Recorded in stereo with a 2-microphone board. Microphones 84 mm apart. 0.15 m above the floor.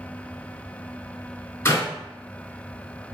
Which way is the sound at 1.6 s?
35° left (ahead or behind).